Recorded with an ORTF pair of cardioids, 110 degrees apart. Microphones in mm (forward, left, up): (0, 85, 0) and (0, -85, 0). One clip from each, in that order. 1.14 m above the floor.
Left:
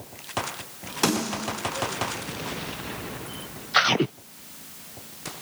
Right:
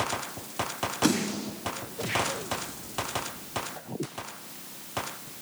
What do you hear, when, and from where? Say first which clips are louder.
1.0 s a snare drum: left 4 dB; 65° left, 6.5 m